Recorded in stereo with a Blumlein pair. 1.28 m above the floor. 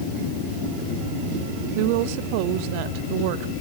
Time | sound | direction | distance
1.8 | a woman speaking | 45° right | 1.3 m